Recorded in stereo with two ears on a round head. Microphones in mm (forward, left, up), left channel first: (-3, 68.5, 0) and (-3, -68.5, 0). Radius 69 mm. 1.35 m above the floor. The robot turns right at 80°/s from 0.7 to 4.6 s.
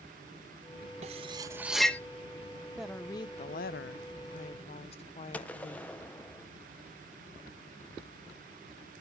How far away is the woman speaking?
About 0.6 m.